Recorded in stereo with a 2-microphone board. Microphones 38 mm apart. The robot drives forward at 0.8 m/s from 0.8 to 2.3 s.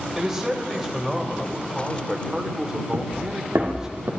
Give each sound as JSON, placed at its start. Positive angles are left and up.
{"t": 0.1, "sound": "a man speaking", "side_deg": -10, "distance_m": 2.5}
{"t": 2.9, "sound": "footsteps", "side_deg": -70, "distance_m": 2.0}